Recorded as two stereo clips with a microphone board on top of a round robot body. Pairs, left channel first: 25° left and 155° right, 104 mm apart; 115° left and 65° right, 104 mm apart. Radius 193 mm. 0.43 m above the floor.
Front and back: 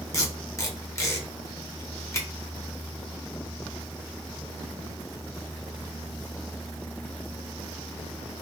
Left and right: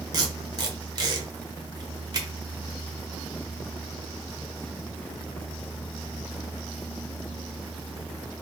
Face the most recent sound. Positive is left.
turn(degrees=-30)